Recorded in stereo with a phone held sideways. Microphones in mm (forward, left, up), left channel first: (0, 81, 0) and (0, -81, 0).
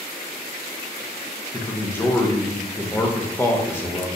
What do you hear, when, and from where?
1.5 s a man speaking: 15° left (ahead or behind), 0.8 m